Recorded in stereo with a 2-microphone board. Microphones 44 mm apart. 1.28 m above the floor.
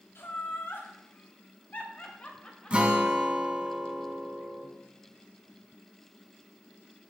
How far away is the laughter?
About 3 m.